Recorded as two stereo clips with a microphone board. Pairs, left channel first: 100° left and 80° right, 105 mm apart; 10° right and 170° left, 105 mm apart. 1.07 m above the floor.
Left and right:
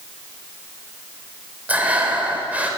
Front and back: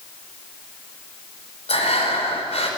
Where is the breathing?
Straight ahead, 4.5 m.